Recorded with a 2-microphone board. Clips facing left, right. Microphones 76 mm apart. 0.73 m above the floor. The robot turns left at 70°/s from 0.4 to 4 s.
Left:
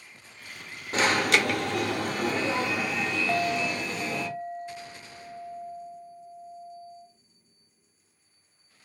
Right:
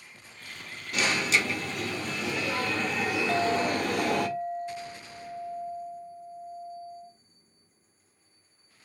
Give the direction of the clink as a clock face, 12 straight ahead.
10 o'clock.